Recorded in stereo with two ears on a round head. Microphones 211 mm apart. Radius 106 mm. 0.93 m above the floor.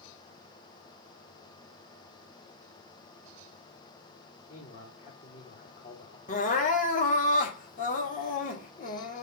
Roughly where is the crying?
Left.